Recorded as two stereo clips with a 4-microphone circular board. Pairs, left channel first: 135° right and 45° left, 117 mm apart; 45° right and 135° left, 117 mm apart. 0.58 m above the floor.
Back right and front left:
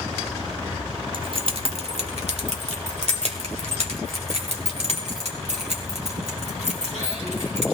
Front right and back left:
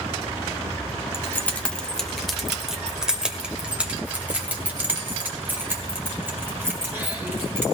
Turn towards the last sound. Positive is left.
turn(degrees=65)